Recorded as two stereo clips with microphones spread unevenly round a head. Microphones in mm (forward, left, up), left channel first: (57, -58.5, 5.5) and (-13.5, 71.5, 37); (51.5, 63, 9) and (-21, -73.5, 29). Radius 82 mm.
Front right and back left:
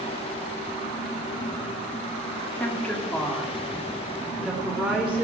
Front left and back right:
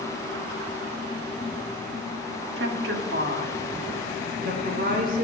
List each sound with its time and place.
2.6 s a woman speaking: 140° right, 2.0 m; by 5.2 s 160° right, 3.5 m